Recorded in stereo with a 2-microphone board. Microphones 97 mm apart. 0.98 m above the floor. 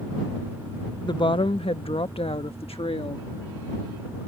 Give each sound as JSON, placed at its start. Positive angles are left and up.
{"t": 1.0, "sound": "a woman speaking", "side_deg": 50}